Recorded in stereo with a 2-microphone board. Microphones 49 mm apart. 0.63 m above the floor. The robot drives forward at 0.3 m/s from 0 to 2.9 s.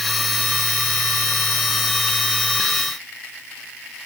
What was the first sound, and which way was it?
Only background noise.